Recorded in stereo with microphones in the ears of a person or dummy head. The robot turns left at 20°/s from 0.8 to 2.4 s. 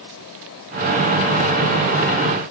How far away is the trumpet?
No trumpet in this recording.